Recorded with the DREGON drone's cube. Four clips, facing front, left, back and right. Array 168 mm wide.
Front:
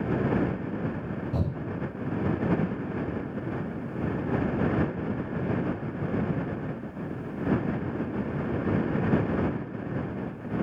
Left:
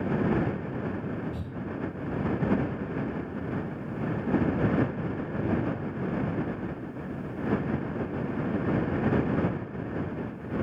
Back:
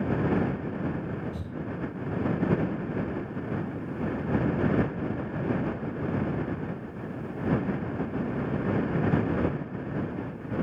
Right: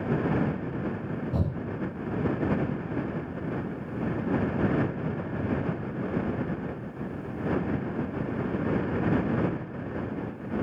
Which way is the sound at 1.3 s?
45° right.